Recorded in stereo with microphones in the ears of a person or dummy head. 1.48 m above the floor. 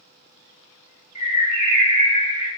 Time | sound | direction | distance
1.1 | a bird | 45° left (ahead or behind) | 1.4 m